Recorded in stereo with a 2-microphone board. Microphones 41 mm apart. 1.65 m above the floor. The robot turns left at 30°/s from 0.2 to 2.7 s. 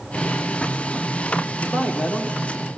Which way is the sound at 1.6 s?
175° left.